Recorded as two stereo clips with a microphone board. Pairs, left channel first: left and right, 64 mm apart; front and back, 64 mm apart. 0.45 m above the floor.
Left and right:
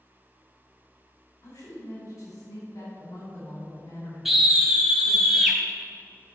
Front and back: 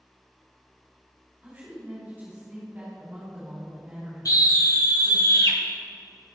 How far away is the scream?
About 2.5 m.